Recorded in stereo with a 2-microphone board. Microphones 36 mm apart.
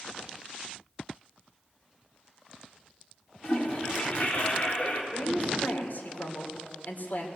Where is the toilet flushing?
35° left (ahead or behind), 3.5 m.